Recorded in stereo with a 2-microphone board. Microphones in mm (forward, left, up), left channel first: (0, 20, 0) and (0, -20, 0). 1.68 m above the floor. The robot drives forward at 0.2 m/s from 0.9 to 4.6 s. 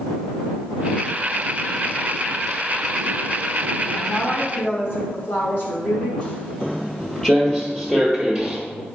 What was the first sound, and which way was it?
A woman speaking, 75° left (ahead or behind).